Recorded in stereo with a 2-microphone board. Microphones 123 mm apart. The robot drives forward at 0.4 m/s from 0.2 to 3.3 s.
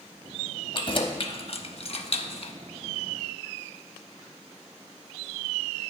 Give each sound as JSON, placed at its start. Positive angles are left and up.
{"t": 0.7, "sound": "keys jangling", "side_deg": 40, "distance_m": 0.8}